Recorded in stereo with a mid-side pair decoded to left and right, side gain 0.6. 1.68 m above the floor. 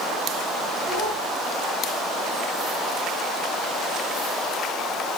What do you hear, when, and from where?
0.9 s a child speaking: 65° right, 8.5 m